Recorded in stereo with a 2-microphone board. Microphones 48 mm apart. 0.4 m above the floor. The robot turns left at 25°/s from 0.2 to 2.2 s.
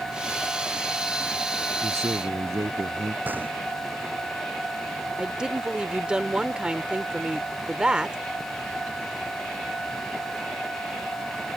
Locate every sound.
1.8 s a man speaking: 80° right; by 3.1 s 75° right (ahead or behind)
3.2 s a gunshot: 40° right (ahead or behind)
5.2 s a woman speaking: 20° right (ahead or behind)